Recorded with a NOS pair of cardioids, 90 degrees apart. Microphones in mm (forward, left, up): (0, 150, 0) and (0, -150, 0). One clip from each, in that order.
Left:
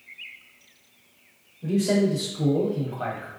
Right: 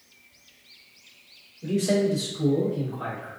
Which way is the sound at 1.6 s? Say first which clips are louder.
Even; 10° right.